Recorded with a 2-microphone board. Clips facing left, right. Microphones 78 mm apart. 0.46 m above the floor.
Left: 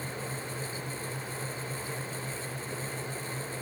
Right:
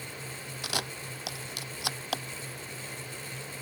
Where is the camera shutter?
85° right.